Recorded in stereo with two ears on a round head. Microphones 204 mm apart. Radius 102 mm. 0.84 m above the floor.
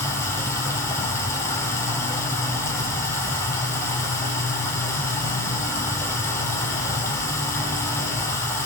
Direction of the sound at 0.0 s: 10° left (ahead or behind).